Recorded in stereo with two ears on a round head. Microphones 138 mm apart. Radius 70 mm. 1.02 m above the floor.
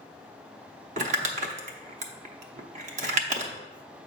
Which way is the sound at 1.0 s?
50° right (ahead or behind).